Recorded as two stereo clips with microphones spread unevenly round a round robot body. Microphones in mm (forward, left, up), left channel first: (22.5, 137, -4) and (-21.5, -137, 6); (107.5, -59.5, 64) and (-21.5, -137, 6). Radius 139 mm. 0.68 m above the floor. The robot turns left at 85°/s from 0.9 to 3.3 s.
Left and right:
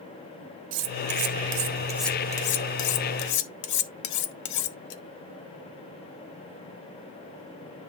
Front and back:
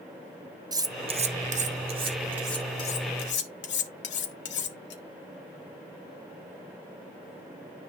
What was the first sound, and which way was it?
Cutlery clinking, 95° right.